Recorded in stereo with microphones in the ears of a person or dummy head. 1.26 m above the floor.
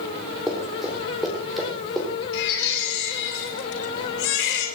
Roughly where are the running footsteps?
Centre.